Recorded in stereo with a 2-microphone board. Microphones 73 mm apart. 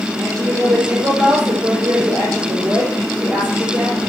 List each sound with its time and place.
0.2 s a woman speaking: 60° right (ahead or behind), 6 m